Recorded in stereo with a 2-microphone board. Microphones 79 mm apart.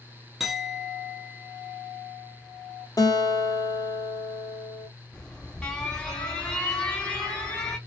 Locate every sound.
0.4 s a clink: 5° right (ahead or behind), 0.8 m
3.0 s a guitar: 50° left (ahead or behind), 1.0 m
5.1 s an alarm: 10° left (ahead or behind), 2 m